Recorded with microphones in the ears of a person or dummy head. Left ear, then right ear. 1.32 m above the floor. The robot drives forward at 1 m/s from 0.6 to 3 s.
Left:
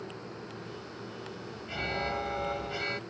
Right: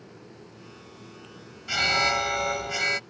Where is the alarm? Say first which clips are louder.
Right 11 dB; 60° right (ahead or behind); by 3.0 s 70° right (ahead or behind).